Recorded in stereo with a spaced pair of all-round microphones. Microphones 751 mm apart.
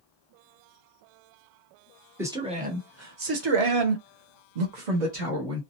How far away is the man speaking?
About 1.0 m.